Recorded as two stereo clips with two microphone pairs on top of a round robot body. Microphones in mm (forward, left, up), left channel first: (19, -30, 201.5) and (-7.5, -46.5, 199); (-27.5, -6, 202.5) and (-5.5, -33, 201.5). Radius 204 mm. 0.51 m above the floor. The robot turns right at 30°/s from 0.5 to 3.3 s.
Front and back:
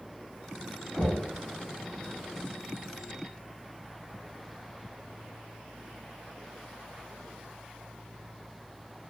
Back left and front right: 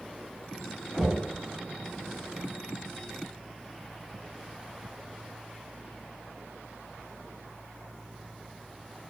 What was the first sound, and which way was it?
Knocking, 40° left.